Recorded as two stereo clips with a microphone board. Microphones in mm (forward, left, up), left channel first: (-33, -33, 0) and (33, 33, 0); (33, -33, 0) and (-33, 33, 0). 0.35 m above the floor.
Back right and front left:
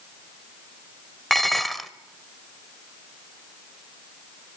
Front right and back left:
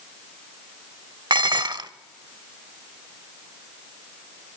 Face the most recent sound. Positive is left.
turn(degrees=135)